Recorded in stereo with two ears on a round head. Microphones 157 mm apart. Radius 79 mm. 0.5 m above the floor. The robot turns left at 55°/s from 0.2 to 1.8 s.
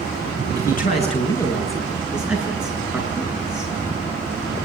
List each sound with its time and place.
0.6 s a man speaking: 65° left, 8.5 m; by 3.7 s 5° right, 8.5 m